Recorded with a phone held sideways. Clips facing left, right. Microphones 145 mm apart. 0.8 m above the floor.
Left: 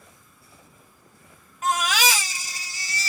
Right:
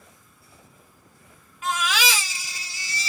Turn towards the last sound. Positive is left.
turn(degrees=40)  # may be behind; listen again after turning